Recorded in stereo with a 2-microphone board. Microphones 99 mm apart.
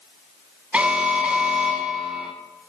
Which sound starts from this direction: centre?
An alarm, at 0.7 s.